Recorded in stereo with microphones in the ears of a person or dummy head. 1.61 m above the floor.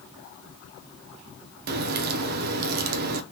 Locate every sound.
1.7 s a crack: 50° right (ahead or behind), 0.5 m